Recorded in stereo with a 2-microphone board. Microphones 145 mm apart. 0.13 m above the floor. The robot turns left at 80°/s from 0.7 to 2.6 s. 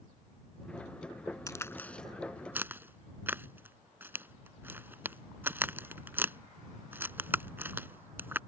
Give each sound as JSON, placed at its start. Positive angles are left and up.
{"t": 1.5, "sound": "a crack", "side_deg": 25}